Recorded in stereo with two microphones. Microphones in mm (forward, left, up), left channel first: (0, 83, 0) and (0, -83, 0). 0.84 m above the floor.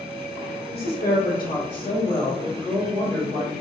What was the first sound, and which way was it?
A woman speaking, 75° left (ahead or behind).